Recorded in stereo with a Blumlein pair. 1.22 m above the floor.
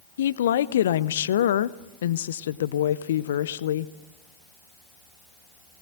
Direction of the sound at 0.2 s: 60° left.